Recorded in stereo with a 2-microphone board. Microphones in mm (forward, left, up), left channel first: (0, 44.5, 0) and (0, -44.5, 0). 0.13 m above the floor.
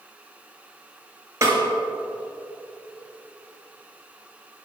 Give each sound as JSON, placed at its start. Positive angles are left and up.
{"t": 1.4, "sound": "a snare drum", "side_deg": -30, "distance_m": 2.5}